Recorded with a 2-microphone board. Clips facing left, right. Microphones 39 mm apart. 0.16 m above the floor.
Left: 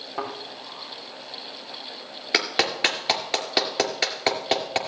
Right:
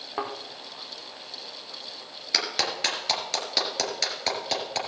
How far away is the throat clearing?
No throat clearing in this recording.